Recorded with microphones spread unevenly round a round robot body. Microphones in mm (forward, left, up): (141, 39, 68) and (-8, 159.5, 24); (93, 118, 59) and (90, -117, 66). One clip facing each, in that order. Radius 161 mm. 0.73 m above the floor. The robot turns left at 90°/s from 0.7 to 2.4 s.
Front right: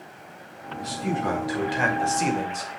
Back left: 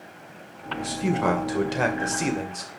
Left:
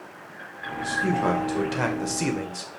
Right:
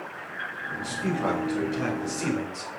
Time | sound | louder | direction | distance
0.7 | a man speaking | back left 2 dB, left 3 dB | 165° right | 2.5 m